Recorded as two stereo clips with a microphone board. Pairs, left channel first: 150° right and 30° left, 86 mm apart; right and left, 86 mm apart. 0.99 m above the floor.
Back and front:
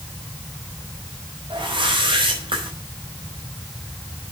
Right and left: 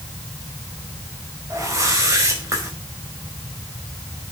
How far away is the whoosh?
About 4.5 m.